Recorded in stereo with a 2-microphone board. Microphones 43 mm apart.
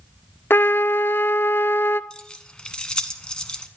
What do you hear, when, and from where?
0.5 s a trumpet: 55° left (ahead or behind), 0.5 m
2.1 s keys jangling: 20° left (ahead or behind), 1.2 m